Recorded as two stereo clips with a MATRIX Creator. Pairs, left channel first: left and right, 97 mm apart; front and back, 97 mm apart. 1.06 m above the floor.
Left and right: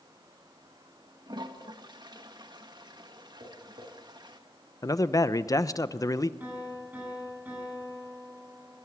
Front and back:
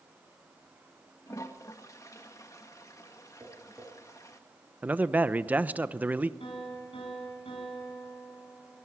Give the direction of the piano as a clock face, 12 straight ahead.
1 o'clock.